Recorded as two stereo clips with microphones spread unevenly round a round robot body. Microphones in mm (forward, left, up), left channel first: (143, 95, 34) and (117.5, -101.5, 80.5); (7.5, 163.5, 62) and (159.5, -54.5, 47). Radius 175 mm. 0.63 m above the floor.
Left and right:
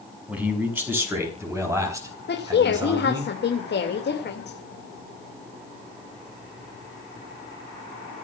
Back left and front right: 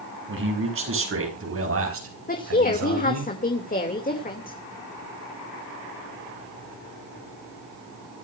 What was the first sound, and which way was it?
A man speaking, 15° right.